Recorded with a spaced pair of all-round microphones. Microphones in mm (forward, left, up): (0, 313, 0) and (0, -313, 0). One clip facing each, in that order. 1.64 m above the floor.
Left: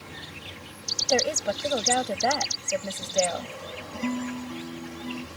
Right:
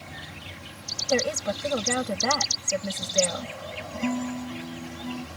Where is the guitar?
15° right (ahead or behind).